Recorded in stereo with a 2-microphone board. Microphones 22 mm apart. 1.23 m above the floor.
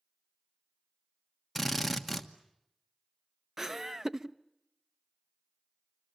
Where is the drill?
Centre (ahead or behind), 1.3 m.